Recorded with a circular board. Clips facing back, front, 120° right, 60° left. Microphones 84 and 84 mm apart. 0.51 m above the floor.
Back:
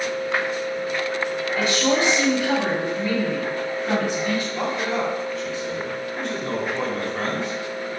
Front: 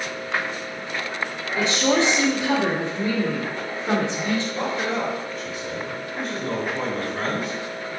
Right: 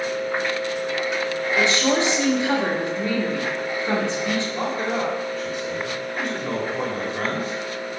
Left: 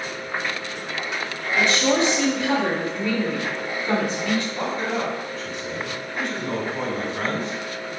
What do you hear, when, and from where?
1.6 s a woman speaking: 60° right, 1.2 m
4.5 s a man speaking: 85° right, 1.8 m